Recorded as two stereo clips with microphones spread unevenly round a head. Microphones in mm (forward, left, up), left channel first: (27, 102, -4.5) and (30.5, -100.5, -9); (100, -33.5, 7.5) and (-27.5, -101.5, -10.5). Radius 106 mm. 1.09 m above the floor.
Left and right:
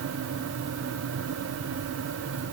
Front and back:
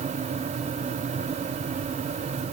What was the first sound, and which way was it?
Only background noise.